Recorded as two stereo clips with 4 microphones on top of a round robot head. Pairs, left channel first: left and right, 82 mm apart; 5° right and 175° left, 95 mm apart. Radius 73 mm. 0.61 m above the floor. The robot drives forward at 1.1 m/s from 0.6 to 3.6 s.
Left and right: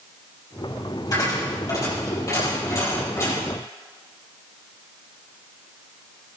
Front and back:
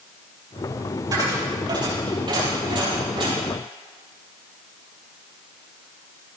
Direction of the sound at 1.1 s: 130° left.